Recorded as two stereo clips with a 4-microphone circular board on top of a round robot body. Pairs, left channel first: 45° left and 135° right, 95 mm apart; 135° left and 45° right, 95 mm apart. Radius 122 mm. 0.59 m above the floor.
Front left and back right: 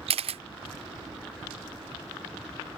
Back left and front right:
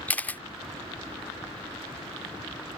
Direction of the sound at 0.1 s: 150° right.